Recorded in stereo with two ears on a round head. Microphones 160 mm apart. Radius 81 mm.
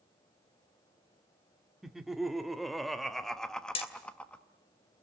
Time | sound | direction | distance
1.8 | laughter | centre (ahead or behind) | 2.0 m
3.8 | hammering | 30° left (ahead or behind) | 2.5 m